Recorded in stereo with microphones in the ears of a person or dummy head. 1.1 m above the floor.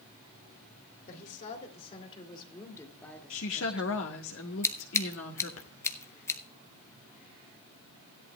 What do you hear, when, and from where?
1.1 s a woman speaking: 45° left (ahead or behind), 3 m; by 4.0 s 10° right (ahead or behind), 2 m
3.3 s a woman speaking: 65° left (ahead or behind), 1.5 m
4.6 s scissors: 15° left (ahead or behind), 0.9 m